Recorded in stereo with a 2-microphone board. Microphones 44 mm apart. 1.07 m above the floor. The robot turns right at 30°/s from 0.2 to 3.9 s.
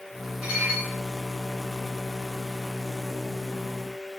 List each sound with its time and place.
0.4 s dishes clattering: 35° right (ahead or behind), 8 m; by 0.9 s 25° right (ahead or behind), 8 m